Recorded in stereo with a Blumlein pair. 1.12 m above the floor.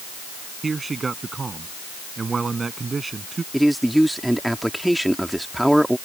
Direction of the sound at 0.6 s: 15° right.